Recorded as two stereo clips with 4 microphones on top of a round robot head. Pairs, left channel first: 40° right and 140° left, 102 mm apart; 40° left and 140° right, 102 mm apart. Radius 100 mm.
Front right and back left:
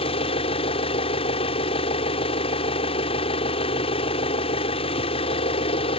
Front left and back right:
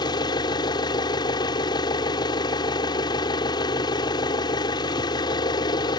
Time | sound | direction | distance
0.0 | an engine running | 10° right | ?